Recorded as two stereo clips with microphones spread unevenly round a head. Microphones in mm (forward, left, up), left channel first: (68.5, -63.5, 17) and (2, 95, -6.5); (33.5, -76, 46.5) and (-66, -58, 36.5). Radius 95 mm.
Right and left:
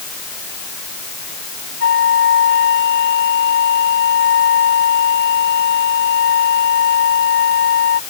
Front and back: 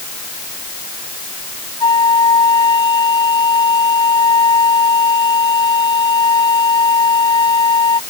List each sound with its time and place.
1.8 s a flute: 50° right